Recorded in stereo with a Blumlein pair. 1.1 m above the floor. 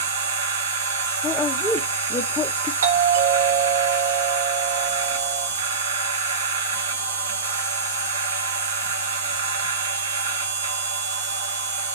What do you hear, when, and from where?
0.0 s a machine running: 70° right, 1.2 m
1.2 s a woman speaking: 15° left, 0.7 m
2.8 s a doorbell: 65° right, 1.7 m